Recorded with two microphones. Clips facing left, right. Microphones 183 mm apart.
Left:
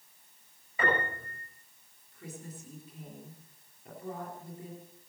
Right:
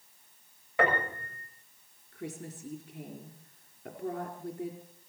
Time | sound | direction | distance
0.8 | a piano | 80° right | 6.5 m
2.1 | a woman speaking | 75° right (ahead or behind) | 4 m